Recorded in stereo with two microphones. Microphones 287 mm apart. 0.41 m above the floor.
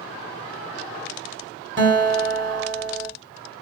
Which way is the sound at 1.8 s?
40° right (ahead or behind).